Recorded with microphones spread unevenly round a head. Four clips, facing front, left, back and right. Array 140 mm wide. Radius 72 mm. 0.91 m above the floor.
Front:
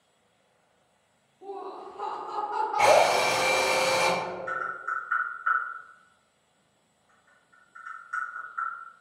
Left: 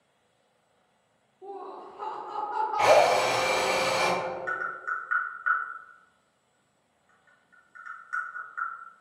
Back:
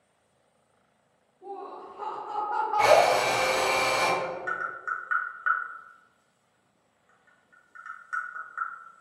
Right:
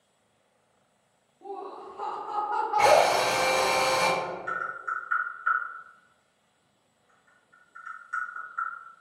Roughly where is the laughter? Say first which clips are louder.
Right 1 dB, front 1 dB; ahead right.